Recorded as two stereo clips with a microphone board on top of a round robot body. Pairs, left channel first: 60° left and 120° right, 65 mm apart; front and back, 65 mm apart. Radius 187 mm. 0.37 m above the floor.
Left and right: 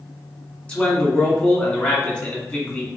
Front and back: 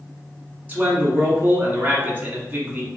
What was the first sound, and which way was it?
A man speaking, 120° left.